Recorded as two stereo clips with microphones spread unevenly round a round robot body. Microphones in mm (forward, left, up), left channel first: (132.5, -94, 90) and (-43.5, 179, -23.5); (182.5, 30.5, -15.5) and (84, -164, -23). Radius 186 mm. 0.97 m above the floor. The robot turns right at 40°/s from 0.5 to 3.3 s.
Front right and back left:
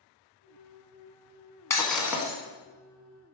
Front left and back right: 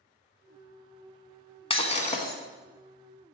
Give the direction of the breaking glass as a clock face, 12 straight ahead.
12 o'clock.